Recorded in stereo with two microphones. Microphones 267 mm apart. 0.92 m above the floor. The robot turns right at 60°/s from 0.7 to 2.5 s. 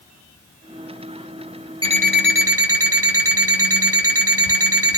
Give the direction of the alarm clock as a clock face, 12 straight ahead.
5 o'clock.